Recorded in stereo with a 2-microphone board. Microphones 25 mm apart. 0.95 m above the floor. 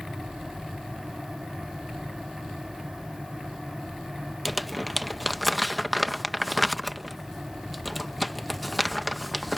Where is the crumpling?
Centre (ahead or behind).